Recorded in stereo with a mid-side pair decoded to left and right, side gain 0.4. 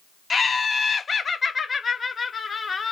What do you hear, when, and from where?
0.3 s laughter: 40° left, 0.8 m